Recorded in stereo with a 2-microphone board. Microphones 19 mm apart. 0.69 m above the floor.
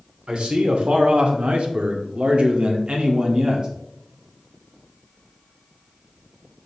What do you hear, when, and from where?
0.3 s a man speaking: 65° right (ahead or behind), 1.9 m; by 3.7 s 35° right (ahead or behind), 1.4 m